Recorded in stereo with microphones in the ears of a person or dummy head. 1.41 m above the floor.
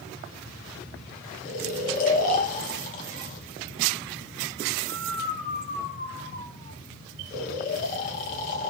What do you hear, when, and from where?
1.4 s snoring: 45° left (ahead or behind), 1.3 m